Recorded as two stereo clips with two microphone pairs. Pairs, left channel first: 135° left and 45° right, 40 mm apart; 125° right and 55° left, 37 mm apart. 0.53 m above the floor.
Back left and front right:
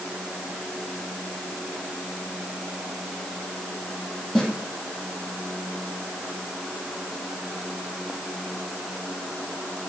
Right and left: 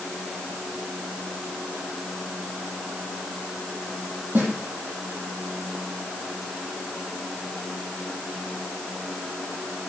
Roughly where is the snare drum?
Ahead left.